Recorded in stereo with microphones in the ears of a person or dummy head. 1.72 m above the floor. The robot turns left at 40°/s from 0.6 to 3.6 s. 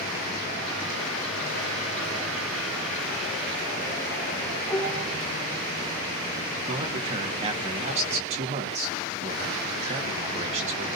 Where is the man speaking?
30° right (ahead or behind), 1.7 m.